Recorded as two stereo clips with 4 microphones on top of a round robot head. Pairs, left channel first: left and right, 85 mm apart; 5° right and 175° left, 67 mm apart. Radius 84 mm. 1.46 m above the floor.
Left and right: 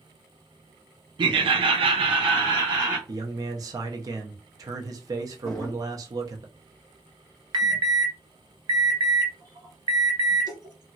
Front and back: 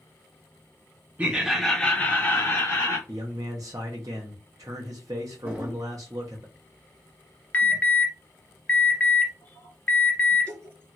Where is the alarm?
70° right, 1.6 m.